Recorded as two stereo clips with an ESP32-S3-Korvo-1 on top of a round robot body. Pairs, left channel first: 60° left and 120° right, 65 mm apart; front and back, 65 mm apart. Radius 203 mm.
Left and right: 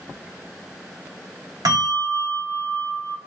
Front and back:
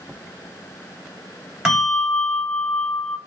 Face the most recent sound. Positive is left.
turn(degrees=-100)